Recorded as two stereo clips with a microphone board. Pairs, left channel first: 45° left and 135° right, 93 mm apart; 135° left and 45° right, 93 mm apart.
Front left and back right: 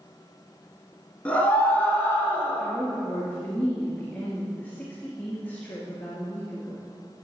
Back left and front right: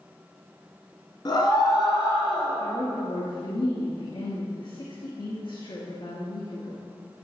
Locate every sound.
1.2 s a scream: 115° left, 2 m; by 2.6 s 110° left, 2.5 m
2.6 s a woman speaking: 115° left, 2.5 m